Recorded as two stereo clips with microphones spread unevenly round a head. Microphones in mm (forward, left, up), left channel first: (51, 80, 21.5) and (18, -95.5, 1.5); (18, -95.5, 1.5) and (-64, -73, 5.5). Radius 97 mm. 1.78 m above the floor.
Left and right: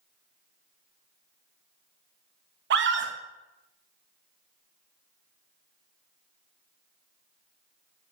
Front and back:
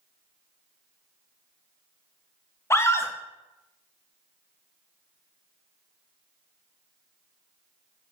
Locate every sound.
2.7 s a scream: 75° right, 2 m